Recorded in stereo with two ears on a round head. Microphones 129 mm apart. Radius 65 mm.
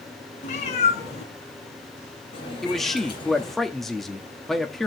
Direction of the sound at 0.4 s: 50° left (ahead or behind).